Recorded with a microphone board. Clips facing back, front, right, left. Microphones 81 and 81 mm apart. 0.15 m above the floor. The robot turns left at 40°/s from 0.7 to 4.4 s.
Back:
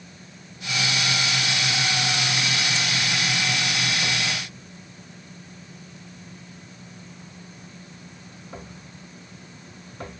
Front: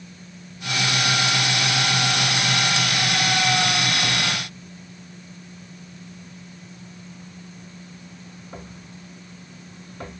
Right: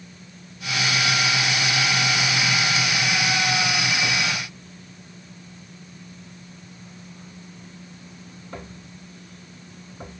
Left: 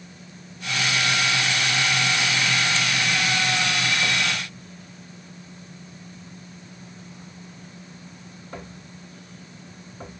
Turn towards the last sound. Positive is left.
No sound to turn to.